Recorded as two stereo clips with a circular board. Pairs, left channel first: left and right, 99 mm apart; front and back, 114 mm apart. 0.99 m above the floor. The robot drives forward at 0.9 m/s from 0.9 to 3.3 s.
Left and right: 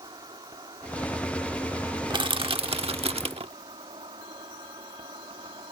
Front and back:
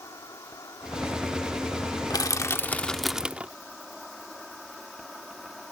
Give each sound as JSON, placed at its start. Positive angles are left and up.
{"t": 0.0, "sound": "an insect", "azimuth_deg": -55}
{"t": 2.1, "sound": "crushing", "azimuth_deg": -55}